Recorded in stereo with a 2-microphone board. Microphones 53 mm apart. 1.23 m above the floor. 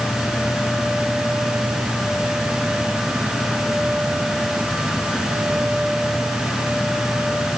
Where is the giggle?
I don't hear a giggle.